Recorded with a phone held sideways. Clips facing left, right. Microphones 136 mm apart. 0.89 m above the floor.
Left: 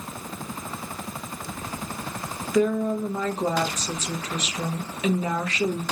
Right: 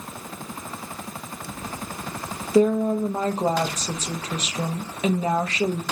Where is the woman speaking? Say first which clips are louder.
Right 4 dB; 30° right (ahead or behind), 0.7 m.